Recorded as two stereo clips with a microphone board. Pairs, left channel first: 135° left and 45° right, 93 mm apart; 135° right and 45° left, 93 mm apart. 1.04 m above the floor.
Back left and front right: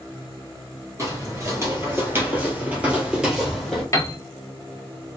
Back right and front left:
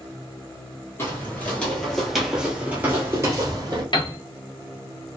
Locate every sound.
1.0 s footsteps: 85° right, 1.3 m; by 3.8 s 45° left, 1.3 m
3.9 s a piano: 170° right, 0.6 m